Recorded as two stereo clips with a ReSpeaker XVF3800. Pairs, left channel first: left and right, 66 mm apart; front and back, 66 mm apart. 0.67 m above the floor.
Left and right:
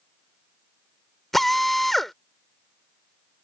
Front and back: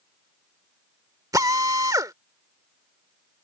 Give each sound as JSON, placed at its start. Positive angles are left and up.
{"t": 1.3, "sound": "a drill", "azimuth_deg": 180}